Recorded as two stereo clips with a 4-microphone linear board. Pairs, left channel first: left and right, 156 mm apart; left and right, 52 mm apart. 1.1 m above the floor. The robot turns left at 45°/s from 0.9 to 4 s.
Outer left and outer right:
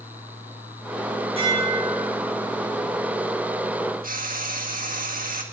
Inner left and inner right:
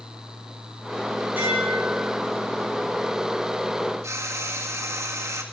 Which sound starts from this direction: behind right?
Dishes clattering, at 1.4 s.